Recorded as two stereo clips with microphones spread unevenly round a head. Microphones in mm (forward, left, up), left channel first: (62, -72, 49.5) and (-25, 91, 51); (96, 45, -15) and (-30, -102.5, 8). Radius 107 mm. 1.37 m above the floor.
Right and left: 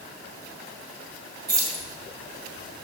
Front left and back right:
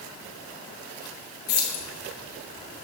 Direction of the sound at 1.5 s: 50° left.